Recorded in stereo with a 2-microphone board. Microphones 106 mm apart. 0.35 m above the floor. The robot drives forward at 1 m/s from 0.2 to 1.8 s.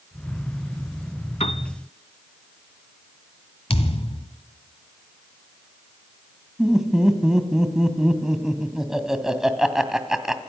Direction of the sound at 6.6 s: 5° right (ahead or behind).